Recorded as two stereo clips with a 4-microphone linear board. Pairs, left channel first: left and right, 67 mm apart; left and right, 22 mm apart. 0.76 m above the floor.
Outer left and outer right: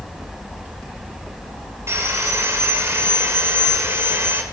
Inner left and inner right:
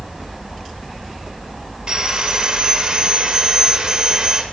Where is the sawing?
40° right (ahead or behind), 1.8 m.